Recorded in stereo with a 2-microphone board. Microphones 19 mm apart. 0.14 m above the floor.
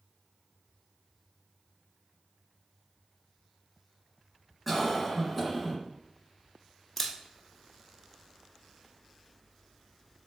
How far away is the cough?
About 1.7 m.